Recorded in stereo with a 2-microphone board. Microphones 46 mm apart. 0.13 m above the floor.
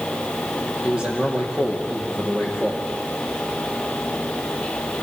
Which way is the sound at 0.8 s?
20° right (ahead or behind).